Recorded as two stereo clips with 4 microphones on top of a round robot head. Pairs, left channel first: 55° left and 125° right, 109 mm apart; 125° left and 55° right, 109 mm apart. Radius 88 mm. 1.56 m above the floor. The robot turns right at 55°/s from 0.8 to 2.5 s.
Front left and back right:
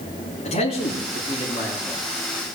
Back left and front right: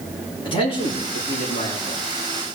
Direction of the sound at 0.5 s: 80° left.